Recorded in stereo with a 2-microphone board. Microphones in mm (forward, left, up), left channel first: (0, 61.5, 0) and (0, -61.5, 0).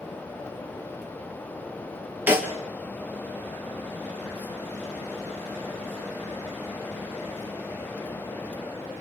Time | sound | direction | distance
2.3 | a snare drum | 15° right (ahead or behind) | 1.8 m